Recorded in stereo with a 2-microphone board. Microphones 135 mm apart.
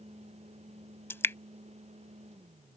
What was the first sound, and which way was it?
Dripping, 20° left (ahead or behind).